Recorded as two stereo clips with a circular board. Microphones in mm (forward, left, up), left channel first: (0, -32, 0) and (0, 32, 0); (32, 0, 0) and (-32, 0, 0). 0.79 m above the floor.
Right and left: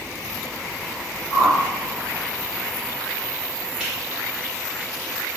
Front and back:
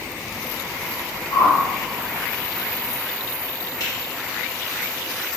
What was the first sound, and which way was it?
A whoosh, 10° left.